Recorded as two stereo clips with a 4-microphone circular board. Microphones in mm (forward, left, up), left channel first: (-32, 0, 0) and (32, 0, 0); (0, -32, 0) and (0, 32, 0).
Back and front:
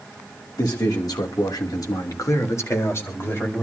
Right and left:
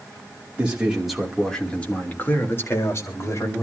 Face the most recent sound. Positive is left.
turn(degrees=-125)